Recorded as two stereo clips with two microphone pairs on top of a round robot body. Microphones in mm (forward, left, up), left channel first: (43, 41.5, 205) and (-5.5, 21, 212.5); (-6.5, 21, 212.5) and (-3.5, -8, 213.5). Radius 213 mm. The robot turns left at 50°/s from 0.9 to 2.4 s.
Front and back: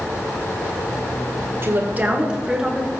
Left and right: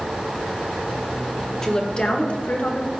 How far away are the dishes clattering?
I don't hear dishes clattering.